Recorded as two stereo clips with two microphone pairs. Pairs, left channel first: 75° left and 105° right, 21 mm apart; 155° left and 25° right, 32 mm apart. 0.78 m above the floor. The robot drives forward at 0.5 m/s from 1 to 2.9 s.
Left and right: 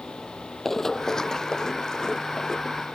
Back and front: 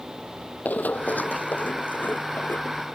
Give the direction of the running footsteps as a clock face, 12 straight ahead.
7 o'clock.